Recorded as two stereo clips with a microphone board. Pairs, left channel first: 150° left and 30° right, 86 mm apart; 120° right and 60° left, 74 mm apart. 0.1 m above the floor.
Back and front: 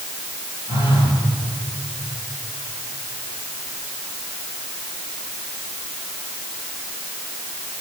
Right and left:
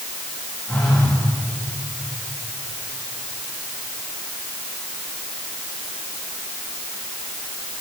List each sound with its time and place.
0.7 s a phone buzzing: 155° left, 9.5 m